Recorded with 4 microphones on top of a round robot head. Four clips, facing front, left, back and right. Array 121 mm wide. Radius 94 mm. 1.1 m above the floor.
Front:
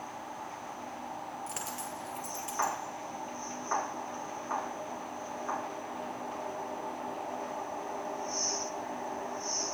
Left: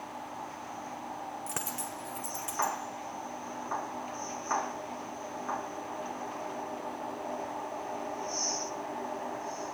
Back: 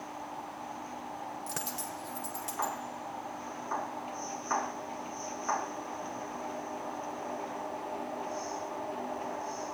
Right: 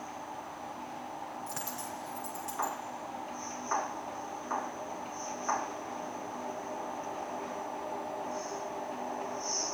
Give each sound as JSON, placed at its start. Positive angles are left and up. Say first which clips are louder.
{"t": 1.5, "sound": "a dropped coin", "louder": "left 1 dB, even", "azimuth_deg": 120, "distance_m": 0.9}